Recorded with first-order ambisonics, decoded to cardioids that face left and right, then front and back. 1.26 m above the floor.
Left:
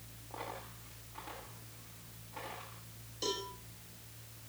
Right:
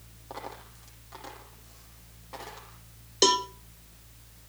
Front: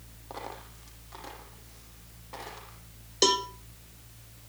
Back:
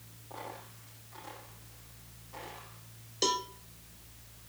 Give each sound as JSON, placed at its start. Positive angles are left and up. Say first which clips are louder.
{"t": 0.3, "sound": "a dropped coin", "louder": "right 3 dB, front 3 dB", "azimuth_deg": -55, "distance_m": 8.5}
{"t": 3.2, "sound": "a cowbell", "louder": "right 15 dB, front 6 dB", "azimuth_deg": -65, "distance_m": 1.1}